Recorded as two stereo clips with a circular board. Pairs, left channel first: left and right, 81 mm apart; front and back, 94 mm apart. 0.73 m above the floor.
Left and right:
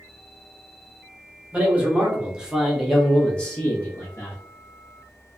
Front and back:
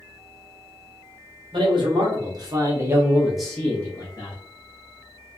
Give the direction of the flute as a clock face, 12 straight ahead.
I don't hear a flute.